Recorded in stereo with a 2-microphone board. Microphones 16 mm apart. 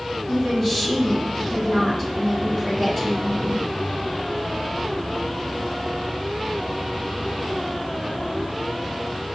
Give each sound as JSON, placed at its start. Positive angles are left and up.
{"t": 0.3, "sound": "a woman speaking", "side_deg": -45, "distance_m": 1.9}